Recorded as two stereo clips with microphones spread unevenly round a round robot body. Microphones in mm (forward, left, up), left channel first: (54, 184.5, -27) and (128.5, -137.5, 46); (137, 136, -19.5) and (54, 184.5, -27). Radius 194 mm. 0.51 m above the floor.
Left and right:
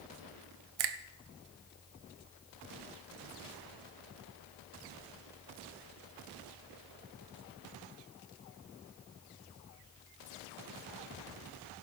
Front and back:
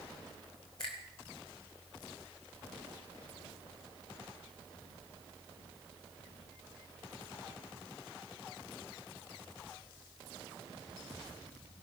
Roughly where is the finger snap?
Right.